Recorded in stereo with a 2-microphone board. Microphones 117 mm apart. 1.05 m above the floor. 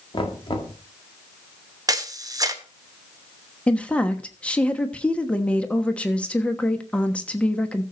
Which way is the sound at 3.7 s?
10° left (ahead or behind).